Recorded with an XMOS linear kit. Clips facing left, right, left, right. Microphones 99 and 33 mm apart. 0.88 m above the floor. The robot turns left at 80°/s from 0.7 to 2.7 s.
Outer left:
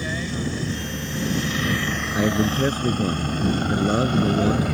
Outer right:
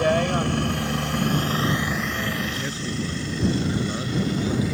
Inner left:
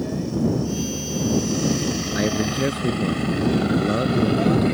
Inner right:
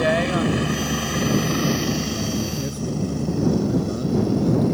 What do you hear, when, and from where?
0.0 s a helicopter: 65° right (ahead or behind); by 4.7 s 55° left (ahead or behind)
2.1 s a man speaking: 85° left; by 4.6 s 45° left